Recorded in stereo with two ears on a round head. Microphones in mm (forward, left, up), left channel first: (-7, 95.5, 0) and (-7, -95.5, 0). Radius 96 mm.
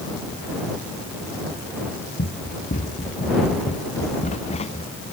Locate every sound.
2.2 s running footsteps: 40° left (ahead or behind); by 4.9 s 30° left (ahead or behind)